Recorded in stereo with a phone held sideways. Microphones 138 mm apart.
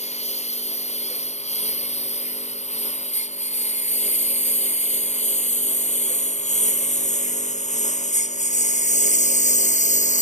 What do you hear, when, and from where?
0.0 s a lawn mower: 50° left (ahead or behind); by 10.2 s 60° left (ahead or behind)